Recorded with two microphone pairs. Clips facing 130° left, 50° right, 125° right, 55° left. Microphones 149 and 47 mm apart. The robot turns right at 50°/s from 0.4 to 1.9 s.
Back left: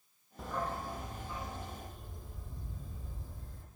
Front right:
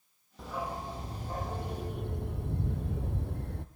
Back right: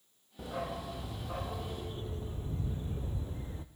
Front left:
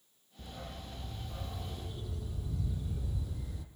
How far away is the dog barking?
About 1.6 m.